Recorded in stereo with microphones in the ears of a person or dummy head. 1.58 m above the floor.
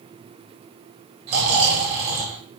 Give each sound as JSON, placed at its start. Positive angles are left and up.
{"t": 1.3, "sound": "snoring", "side_deg": -50, "distance_m": 1.9}